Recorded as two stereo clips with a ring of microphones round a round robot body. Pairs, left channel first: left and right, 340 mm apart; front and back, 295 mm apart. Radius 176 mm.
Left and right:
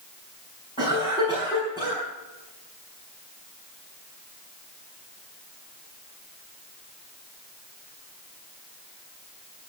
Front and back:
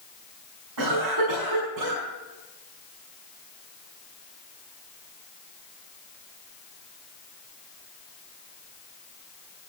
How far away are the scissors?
No scissors in this recording.